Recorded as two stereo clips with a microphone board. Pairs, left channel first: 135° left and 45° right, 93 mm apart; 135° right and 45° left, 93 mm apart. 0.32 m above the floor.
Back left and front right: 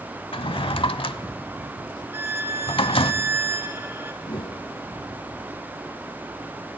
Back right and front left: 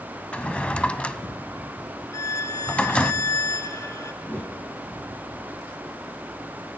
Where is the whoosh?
155° left, 1.9 m.